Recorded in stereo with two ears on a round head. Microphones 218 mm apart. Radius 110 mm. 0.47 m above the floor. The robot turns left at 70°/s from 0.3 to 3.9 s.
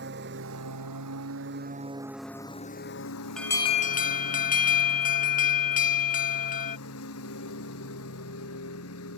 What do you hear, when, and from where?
0.0 s a lawn mower: 45° right; by 9.2 s 60° left
3.4 s an alarm: straight behind; by 6.8 s 140° left